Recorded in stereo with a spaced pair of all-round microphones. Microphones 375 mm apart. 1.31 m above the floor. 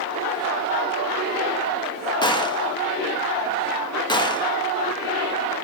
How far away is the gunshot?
About 1.1 m.